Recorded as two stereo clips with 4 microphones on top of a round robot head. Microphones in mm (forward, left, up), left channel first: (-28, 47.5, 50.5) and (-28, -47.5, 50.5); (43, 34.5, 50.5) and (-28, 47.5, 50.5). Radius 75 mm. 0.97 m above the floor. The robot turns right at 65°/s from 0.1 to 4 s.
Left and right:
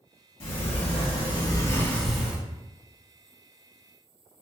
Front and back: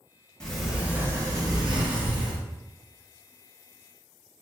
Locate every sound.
0.4 s a sliding door: 70° left, 1.0 m; by 2.4 s 160° right, 1.0 m